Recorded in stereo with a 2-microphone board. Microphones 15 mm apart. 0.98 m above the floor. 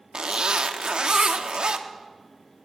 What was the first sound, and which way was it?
A zipper, 75° right (ahead or behind).